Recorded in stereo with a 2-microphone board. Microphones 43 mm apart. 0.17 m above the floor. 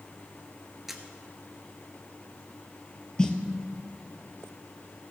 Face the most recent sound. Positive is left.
turn(degrees=15)  # may be behind; listen again after turning